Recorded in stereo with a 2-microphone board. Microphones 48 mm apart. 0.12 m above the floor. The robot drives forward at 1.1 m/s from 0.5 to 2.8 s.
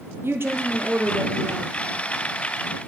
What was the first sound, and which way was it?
A woman speaking, 55° right (ahead or behind).